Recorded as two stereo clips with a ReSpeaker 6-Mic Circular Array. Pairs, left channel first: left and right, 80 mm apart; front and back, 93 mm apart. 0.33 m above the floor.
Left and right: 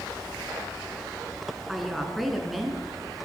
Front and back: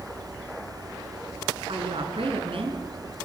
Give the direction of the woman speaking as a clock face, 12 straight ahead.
6 o'clock.